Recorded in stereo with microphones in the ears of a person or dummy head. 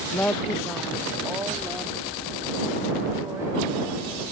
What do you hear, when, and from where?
0.1 s a woman speaking: 15° left (ahead or behind); by 4.3 s 15° right (ahead or behind)